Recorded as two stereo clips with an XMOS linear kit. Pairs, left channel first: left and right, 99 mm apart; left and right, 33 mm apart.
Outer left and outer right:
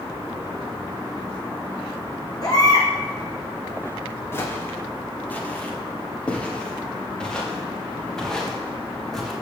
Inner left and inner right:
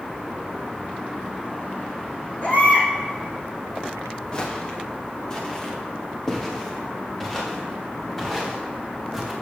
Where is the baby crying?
40° left (ahead or behind), 3 m.